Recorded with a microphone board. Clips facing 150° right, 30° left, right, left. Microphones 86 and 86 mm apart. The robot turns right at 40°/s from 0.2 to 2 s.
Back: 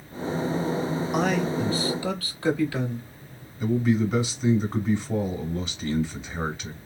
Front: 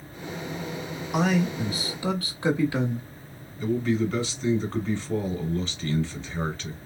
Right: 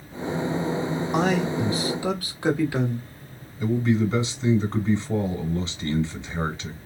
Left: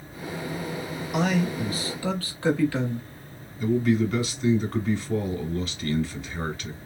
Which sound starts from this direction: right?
A man speaking, at 3.6 s.